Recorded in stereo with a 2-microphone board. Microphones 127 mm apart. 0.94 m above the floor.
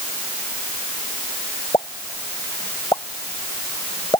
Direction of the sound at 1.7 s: 30° left (ahead or behind).